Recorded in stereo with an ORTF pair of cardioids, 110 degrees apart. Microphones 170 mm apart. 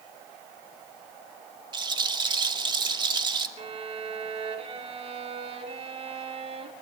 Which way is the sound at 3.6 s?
35° right.